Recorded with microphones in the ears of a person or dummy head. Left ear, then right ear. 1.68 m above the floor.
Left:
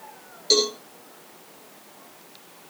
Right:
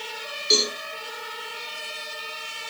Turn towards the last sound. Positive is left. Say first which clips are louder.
# even
turn(degrees=35)  # may be behind; listen again after turning